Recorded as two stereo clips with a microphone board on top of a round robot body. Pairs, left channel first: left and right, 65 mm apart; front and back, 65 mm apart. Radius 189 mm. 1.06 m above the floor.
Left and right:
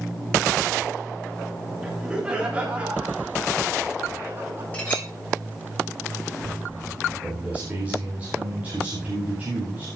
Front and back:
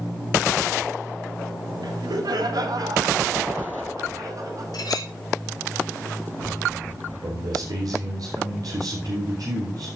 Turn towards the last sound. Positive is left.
turn(degrees=-155)